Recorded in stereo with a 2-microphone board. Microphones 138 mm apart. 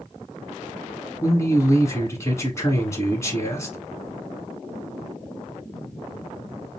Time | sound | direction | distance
1.2 | a man speaking | 20° left (ahead or behind) | 1.4 m